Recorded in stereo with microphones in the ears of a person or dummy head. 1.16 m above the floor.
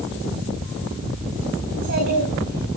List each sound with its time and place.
1.7 s a child speaking: 55° right (ahead or behind), 5 m